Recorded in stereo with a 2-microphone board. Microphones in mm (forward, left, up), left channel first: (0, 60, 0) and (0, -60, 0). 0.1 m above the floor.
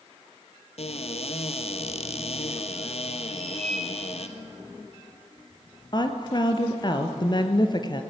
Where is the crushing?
No crushing in this recording.